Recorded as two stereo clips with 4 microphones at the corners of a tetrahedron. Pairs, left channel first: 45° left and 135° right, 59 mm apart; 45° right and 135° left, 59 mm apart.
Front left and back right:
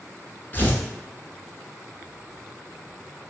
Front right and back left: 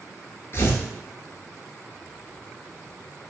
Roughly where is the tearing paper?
Ahead.